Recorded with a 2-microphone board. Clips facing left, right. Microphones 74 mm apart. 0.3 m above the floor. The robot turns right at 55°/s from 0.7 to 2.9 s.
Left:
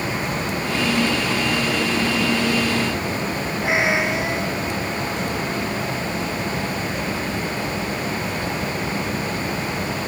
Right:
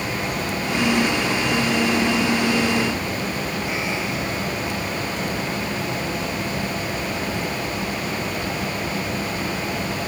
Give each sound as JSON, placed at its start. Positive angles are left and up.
{"t": 3.6, "sound": "a cat meowing", "side_deg": 75}